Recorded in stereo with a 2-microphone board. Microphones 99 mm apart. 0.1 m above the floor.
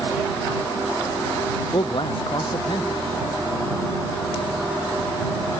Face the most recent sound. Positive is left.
turn(degrees=55)  # may be behind; listen again after turning